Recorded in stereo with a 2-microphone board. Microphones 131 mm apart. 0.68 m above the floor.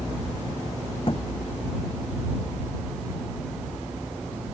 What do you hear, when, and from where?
1.1 s a thud: 45° left (ahead or behind)